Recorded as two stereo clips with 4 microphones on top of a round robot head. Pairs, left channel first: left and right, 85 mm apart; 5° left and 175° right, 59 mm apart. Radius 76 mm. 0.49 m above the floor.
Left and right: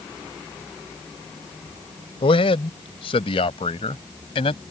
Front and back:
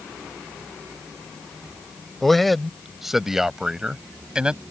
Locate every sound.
2.2 s a man speaking: 95° left; by 4.6 s 115° left